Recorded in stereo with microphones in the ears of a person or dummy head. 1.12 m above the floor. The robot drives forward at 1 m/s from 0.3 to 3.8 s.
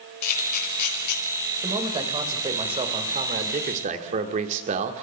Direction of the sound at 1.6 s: 20° right (ahead or behind).